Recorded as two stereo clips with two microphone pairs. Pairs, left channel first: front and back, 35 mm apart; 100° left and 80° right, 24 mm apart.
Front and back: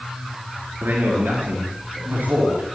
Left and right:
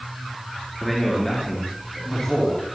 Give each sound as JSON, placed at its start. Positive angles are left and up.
{"t": 0.8, "sound": "a man speaking", "azimuth_deg": -175, "distance_m": 4.5}